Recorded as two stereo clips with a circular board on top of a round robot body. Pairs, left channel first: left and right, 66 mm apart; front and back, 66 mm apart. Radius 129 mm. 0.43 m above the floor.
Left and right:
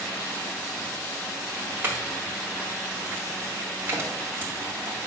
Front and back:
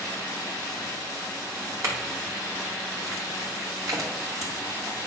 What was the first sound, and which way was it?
A clink, 150° right.